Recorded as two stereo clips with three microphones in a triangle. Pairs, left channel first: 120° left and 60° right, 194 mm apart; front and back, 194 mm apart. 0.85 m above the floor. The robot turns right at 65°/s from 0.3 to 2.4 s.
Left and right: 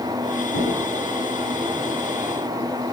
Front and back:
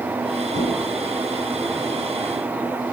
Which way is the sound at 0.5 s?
130° left.